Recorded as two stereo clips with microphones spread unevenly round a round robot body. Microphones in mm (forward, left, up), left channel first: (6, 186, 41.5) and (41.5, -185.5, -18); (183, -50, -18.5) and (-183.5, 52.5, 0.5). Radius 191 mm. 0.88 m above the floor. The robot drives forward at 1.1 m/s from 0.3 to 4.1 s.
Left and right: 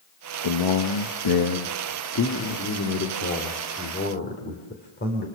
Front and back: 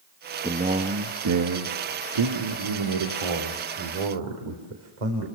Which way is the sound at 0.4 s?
85° left.